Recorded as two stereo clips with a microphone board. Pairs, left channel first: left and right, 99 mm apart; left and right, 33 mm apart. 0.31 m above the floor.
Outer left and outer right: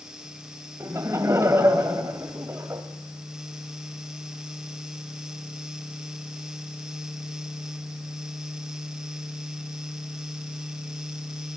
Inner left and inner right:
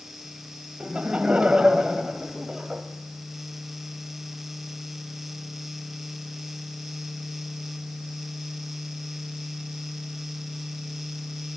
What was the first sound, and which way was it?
Laughter, 30° right (ahead or behind).